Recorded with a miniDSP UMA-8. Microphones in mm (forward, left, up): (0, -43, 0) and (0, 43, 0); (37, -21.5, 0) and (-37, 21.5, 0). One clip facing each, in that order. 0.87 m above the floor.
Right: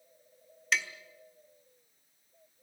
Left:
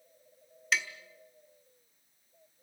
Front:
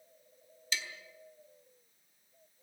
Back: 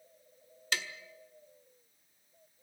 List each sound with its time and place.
0.7 s tapping: straight behind, 1.5 m